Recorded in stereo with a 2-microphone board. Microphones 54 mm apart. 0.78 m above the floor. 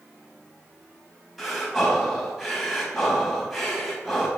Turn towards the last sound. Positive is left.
turn(degrees=0)  # may be behind; listen again after turning